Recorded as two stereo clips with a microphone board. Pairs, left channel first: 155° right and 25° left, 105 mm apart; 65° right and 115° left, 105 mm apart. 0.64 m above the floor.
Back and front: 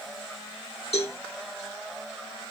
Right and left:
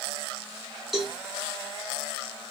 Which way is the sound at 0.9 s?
160° right.